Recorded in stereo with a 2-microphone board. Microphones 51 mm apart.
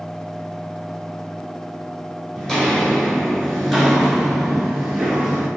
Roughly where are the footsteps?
Centre.